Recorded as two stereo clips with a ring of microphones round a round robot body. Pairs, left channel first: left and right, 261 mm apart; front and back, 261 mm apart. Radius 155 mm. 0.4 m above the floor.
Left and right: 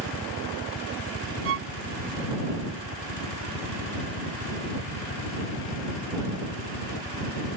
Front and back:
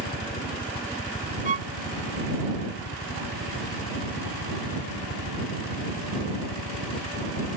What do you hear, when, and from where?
0.0 s a helicopter: 50° left; by 7.6 s 55° left
1.4 s a violin: 120° right